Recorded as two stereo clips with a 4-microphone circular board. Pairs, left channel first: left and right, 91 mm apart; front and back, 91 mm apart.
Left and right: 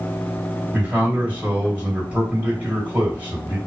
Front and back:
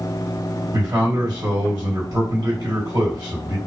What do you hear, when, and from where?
0.7 s a man speaking: 160° right, 1.9 m